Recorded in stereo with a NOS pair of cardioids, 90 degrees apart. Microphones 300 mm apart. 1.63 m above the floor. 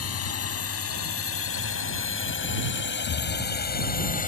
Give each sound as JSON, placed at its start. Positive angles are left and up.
{"t": 0.0, "sound": "a drone", "azimuth_deg": 50}
{"t": 3.0, "sound": "an explosion", "azimuth_deg": 65}